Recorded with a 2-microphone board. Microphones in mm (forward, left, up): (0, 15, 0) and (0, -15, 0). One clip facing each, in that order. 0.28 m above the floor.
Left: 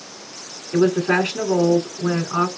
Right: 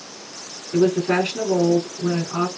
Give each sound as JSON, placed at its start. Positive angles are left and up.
{"t": 0.7, "sound": "a woman speaking", "side_deg": 65, "distance_m": 3.0}